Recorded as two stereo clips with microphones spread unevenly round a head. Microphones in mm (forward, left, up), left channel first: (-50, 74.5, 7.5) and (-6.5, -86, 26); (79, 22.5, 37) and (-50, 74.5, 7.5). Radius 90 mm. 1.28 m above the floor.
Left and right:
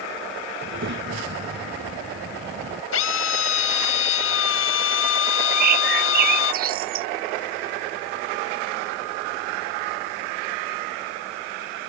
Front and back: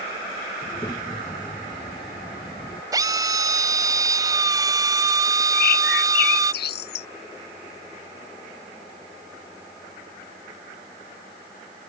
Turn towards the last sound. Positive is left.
turn(degrees=-30)